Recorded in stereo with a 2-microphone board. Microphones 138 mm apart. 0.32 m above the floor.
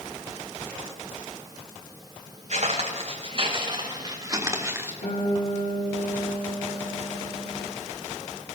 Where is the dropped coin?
No dropped coin in this recording.